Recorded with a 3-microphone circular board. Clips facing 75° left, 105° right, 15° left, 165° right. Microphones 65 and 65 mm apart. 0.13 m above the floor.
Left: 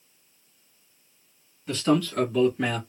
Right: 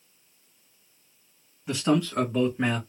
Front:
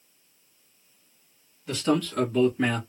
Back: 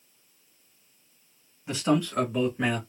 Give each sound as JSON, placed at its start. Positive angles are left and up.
{"t": 1.7, "sound": "a man speaking", "azimuth_deg": -150, "distance_m": 1.6}